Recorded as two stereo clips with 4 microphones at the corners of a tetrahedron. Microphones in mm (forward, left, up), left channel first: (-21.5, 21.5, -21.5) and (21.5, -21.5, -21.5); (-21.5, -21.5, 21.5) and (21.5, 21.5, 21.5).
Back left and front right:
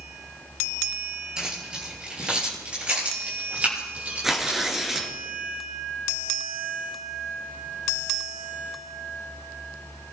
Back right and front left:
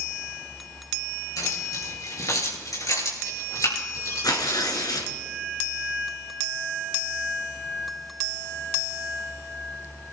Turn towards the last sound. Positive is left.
turn(degrees=-130)